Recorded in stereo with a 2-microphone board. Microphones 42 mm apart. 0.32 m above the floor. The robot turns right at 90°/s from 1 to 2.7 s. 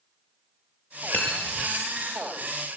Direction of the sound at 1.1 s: 45° left (ahead or behind).